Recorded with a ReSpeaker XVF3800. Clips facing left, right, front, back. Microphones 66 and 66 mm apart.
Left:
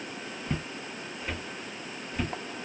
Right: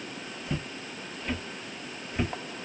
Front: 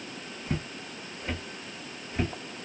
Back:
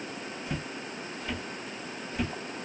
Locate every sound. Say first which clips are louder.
0.5 s footsteps: even, front 4 dB; 50° left, 1.4 m; by 2.3 s 40° right, 1.1 m